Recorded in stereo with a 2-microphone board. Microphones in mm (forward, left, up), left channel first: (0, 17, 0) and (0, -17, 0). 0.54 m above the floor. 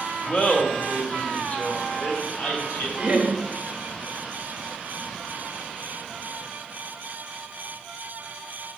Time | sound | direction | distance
0.3 | laughter | 30° left (ahead or behind) | 1.1 m
3.0 | laughter | 30° right (ahead or behind) | 1.1 m